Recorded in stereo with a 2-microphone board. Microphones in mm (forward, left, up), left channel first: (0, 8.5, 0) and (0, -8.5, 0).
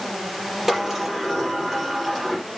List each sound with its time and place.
0.7 s a sliding door: 15° right (ahead or behind), 5.5 m